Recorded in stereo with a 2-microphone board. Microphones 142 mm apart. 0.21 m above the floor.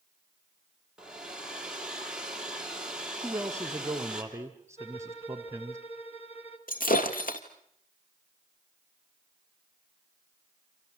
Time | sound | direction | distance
1.0 | a hair dryer | 5° right (ahead or behind) | 3 m
3.2 | a man speaking | 20° right (ahead or behind) | 1.3 m
4.8 | a violin | 40° left (ahead or behind) | 3 m
6.7 | breaking glass | 80° left | 2.5 m